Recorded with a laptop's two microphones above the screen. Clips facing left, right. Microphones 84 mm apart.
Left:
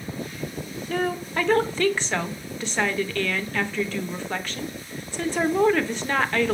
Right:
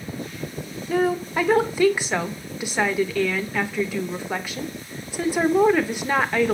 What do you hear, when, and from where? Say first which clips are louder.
0.9 s a woman speaking: right 5 dB; 10° right (ahead or behind), 0.6 m